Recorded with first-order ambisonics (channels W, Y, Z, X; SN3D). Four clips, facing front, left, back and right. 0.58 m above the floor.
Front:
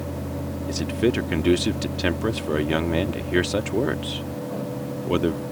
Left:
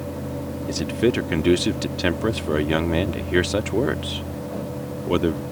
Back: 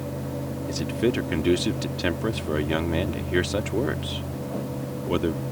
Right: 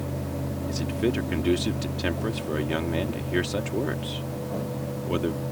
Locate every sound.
0.7 s a man speaking: 70° left